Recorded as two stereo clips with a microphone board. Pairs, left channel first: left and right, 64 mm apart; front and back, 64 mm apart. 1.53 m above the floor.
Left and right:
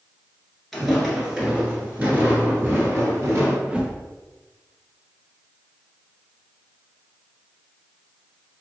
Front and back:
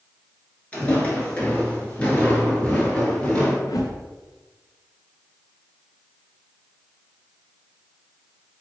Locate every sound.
0.7 s footsteps: 5° left, 1.5 m; by 3.6 s 70° right, 2 m
3.7 s a whoosh: 15° right, 0.6 m